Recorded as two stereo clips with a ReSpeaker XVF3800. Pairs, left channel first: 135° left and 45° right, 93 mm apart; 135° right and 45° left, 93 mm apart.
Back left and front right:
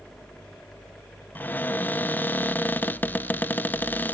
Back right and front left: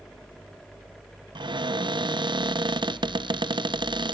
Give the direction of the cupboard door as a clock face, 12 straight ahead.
10 o'clock.